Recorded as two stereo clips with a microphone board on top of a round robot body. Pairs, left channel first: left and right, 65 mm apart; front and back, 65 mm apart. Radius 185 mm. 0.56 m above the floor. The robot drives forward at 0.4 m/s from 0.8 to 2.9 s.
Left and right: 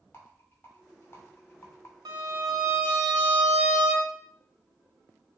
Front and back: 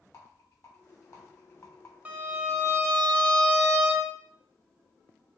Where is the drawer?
No drawer in this recording.